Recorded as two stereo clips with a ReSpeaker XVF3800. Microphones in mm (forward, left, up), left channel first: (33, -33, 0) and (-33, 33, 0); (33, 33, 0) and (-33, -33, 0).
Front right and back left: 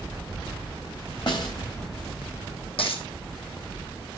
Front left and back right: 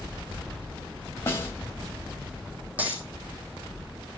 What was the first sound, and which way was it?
A snare drum, 15° right.